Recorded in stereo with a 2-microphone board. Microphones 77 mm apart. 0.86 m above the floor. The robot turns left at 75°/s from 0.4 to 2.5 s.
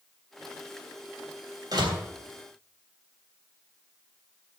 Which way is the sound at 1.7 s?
50° right (ahead or behind).